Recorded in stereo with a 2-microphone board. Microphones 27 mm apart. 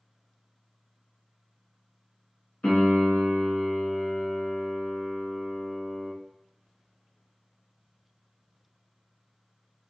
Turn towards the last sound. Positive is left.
turn(degrees=55)  # may be behind; listen again after turning